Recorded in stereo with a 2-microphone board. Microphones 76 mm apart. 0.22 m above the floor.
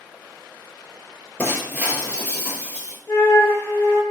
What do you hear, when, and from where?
1.4 s breaking glass: 15° right (ahead or behind), 0.7 m
3.1 s a flute: 30° left (ahead or behind), 0.7 m